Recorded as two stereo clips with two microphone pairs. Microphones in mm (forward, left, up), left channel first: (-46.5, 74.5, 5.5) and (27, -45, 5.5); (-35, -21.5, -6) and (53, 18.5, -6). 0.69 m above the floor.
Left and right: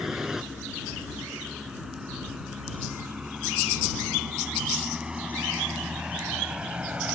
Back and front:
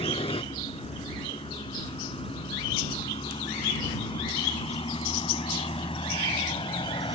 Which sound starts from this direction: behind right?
A vehicle, at 0.0 s.